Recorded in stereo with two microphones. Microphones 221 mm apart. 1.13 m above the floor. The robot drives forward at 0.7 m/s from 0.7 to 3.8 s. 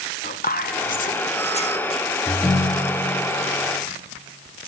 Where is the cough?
No cough in this recording.